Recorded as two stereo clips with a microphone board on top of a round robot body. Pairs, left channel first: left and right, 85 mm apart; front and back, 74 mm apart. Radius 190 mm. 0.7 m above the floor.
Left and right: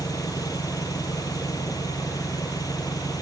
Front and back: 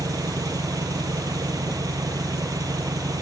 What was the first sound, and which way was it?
An engine running, 140° left.